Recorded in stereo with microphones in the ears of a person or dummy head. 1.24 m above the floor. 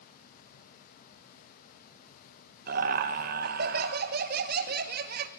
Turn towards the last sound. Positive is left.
turn(degrees=-45)  # may be behind; listen again after turning